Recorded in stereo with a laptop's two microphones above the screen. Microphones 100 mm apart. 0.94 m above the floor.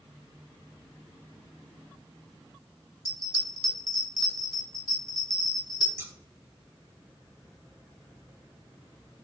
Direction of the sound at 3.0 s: 40° left (ahead or behind).